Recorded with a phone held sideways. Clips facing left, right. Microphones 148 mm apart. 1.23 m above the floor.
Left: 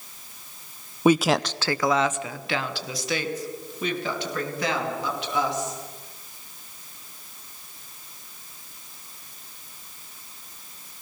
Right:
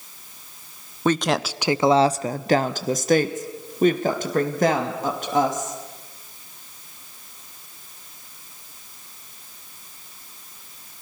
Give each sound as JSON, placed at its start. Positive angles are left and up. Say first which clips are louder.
{"t": 1.1, "sound": "a woman speaking", "louder": "left 2 dB", "side_deg": 10, "distance_m": 0.6}